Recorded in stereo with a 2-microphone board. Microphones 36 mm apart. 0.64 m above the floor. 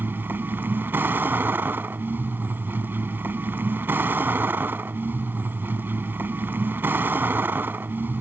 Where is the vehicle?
80° right.